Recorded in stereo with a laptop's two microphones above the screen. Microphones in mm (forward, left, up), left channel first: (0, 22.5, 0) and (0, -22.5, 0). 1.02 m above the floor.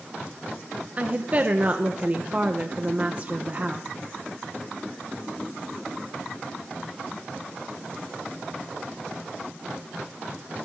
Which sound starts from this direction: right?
A woman speaking, at 1.0 s.